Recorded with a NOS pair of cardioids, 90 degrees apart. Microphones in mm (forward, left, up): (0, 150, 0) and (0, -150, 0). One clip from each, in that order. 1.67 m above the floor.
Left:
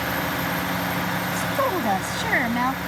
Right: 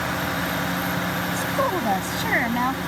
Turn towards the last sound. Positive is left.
turn(degrees=10)